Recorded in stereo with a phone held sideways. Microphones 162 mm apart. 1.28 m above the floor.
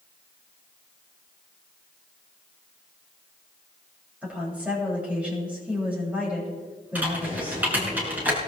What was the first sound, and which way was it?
A woman speaking, 10° right (ahead or behind).